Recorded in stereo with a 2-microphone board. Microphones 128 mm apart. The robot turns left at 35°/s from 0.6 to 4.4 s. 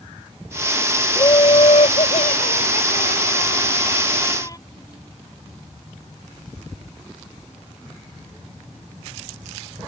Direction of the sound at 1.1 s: 145° left.